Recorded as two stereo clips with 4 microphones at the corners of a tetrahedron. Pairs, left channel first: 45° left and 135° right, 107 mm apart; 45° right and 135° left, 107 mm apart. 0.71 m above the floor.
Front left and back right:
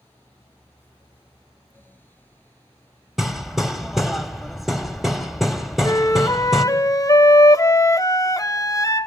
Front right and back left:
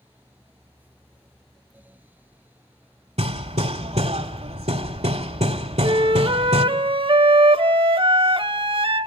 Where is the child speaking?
No child speaking in this recording.